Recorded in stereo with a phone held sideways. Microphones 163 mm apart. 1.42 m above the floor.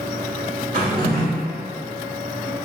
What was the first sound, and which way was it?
A drawer, 60° right (ahead or behind).